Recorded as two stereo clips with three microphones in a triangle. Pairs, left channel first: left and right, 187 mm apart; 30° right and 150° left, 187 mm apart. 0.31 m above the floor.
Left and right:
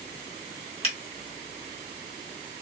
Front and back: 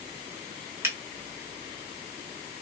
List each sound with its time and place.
0.8 s a finger snap: 85° left, 1.3 m